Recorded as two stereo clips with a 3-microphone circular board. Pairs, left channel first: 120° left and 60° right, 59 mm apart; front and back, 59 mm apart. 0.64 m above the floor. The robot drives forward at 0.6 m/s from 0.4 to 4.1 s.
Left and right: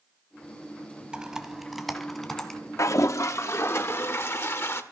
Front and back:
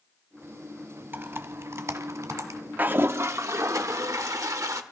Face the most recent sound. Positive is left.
turn(degrees=160)